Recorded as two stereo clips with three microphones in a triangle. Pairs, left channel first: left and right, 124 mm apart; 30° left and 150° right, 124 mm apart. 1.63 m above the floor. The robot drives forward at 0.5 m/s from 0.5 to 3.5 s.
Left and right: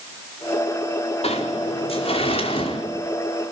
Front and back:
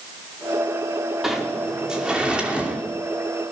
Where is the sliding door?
125° left, 4.5 m; by 2.8 s 130° left, 5 m.